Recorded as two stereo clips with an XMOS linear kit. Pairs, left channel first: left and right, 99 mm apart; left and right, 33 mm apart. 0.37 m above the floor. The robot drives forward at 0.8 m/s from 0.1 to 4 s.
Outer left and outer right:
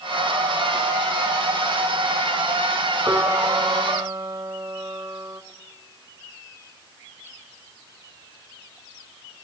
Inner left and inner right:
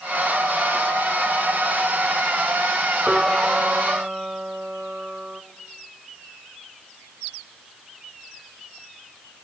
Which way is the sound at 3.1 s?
20° right (ahead or behind).